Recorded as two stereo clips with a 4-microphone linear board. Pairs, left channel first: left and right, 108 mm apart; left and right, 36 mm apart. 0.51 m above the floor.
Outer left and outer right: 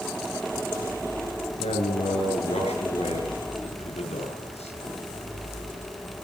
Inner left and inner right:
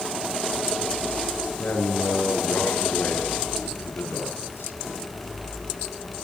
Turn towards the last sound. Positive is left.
turn(degrees=75)  # may be behind; listen again after turning